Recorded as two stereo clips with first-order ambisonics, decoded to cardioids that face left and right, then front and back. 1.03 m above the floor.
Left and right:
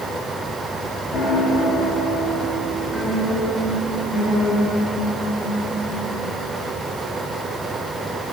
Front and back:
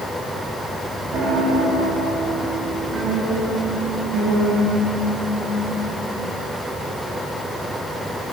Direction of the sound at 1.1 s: 145° left.